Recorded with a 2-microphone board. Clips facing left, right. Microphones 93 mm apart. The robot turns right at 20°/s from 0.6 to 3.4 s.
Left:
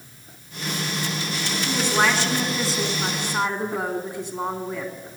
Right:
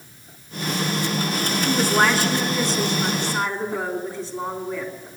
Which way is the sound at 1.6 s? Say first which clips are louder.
Right 2 dB; 15° right.